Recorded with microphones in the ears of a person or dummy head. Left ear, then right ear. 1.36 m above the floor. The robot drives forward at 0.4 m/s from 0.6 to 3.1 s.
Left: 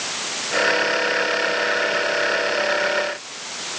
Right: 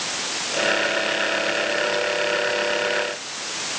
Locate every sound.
Only background noise.